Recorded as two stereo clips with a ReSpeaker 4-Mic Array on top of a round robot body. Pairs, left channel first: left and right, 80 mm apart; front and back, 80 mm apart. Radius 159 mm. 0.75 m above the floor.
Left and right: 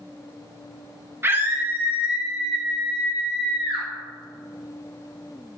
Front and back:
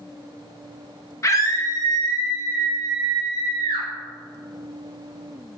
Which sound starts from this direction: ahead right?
A scream, at 1.2 s.